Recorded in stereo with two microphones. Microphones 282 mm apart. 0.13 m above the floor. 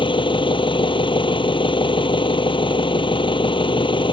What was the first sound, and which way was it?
An engine running, 15° left (ahead or behind).